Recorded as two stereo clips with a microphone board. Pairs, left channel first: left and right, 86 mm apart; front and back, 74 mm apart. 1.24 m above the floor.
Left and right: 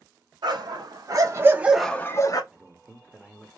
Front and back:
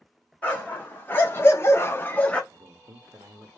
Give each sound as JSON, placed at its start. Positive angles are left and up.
{"t": 0.4, "sound": "a dog barking", "azimuth_deg": -70, "distance_m": 2.0}
{"t": 2.5, "sound": "a man speaking", "azimuth_deg": 180, "distance_m": 1.0}